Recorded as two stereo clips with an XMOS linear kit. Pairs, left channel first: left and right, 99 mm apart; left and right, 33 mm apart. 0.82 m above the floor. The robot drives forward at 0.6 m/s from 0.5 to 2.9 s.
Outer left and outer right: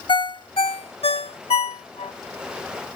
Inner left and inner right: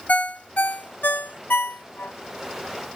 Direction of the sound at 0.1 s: 60° left (ahead or behind).